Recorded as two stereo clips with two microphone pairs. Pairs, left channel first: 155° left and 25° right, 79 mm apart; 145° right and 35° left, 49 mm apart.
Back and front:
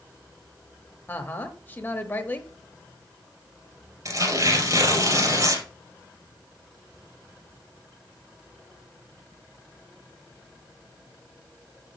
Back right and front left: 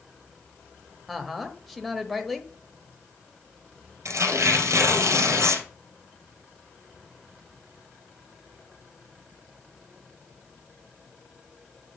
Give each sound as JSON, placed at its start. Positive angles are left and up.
{"t": 1.1, "sound": "a woman speaking", "azimuth_deg": 130, "distance_m": 1.1}
{"t": 4.0, "sound": "tearing paper", "azimuth_deg": 20, "distance_m": 2.5}